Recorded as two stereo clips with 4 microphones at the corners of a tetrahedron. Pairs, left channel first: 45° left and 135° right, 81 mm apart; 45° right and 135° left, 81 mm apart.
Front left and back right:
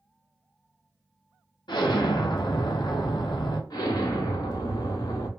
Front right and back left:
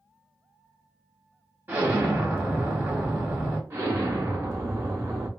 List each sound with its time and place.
1.7 s an explosion: 70° left, 1.1 m
3.7 s an explosion: 80° left, 1.1 m